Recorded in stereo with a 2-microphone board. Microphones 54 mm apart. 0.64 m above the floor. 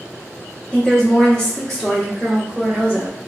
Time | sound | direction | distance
0.7 | a woman speaking | 15° left (ahead or behind) | 0.9 m